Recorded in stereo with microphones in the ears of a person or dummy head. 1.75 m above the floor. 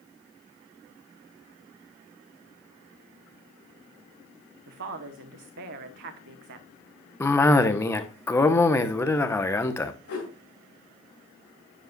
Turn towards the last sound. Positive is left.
turn(degrees=65)  # may be behind; listen again after turning